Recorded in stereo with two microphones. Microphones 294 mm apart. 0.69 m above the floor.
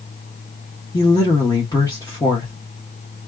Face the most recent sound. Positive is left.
turn(degrees=15)  # may be behind; listen again after turning